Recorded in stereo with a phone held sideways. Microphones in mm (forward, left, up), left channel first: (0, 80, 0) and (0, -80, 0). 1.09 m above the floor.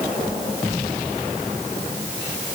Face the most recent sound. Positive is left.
No sound to turn to.